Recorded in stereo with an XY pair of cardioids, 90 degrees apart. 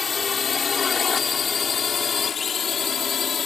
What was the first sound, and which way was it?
A drone, 40° left.